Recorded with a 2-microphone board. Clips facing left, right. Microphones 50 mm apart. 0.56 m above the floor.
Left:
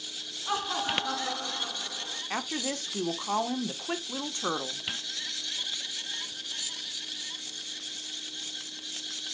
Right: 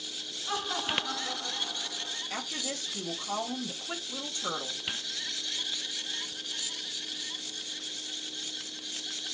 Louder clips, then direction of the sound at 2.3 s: Left 6 dB; 45° left (ahead or behind).